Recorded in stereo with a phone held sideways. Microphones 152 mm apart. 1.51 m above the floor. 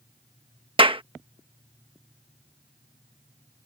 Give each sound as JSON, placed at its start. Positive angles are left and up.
{"t": 0.8, "sound": "a clap", "side_deg": -35}